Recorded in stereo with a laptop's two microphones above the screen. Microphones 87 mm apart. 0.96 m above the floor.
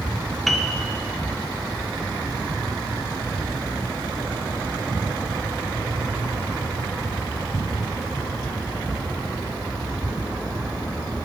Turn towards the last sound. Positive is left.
turn(degrees=5)  # may be behind; listen again after turning